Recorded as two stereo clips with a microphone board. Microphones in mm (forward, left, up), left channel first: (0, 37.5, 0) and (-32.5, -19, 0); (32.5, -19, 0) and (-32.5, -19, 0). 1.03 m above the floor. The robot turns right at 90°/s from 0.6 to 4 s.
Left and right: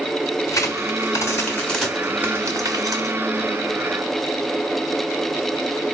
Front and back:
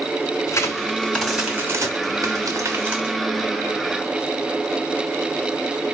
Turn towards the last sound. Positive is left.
turn(degrees=-25)